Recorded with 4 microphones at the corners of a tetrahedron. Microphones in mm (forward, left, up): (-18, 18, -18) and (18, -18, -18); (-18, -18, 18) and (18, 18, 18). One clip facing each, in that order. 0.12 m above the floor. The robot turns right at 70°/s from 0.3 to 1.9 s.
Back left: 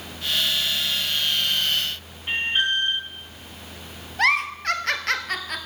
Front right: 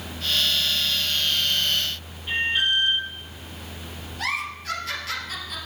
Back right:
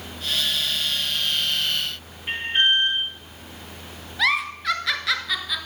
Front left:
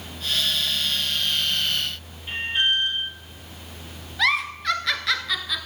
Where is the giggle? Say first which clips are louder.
Back left 8 dB, even; 135° left, 1.1 m.